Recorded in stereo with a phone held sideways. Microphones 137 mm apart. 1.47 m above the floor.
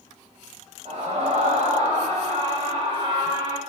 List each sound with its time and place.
0.8 s a scream: 60° right (ahead or behind), 6.5 m; by 3.6 s 40° right (ahead or behind), 5.5 m